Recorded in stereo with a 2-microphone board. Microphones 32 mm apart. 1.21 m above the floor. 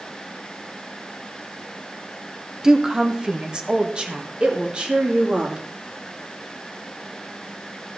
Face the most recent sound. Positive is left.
turn(degrees=-35)  # may be behind; listen again after turning